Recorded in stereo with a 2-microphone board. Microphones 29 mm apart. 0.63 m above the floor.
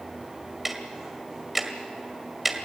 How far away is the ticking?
About 1.8 m.